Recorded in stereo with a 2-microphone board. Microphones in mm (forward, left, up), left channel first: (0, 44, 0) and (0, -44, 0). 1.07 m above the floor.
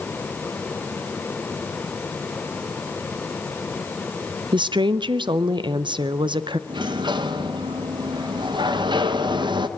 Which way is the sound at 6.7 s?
60° right (ahead or behind).